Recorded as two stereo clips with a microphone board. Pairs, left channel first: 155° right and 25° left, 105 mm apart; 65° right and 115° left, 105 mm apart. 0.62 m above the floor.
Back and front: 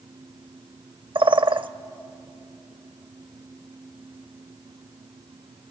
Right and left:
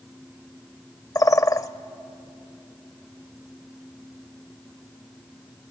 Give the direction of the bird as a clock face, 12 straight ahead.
12 o'clock.